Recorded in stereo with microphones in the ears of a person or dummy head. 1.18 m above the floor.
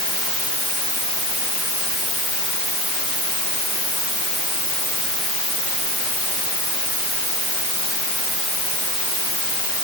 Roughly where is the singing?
No singing in this recording.